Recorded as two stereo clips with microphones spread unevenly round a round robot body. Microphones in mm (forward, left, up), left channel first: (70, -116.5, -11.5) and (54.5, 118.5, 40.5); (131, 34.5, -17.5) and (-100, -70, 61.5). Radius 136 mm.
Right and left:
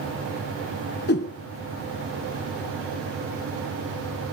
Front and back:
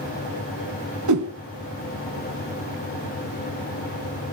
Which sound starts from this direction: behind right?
A whoosh, at 1.1 s.